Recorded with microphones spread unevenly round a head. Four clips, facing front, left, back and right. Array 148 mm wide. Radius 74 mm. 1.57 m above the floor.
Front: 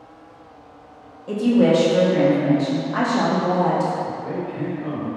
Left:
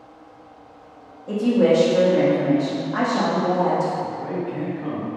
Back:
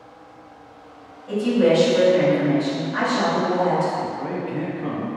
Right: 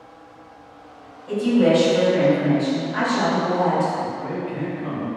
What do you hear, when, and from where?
1.3 s a woman speaking: 40° left, 1.1 m
4.0 s a man speaking: 165° left, 0.9 m